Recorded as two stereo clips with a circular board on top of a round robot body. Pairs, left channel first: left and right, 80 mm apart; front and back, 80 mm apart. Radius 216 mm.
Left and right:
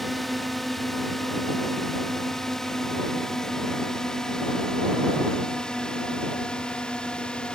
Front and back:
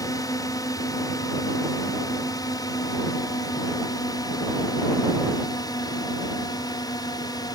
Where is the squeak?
I don't hear a squeak.